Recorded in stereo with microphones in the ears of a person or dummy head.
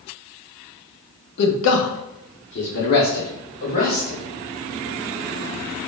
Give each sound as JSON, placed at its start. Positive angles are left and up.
{"t": 1.4, "sound": "a man speaking", "side_deg": 60, "distance_m": 0.6}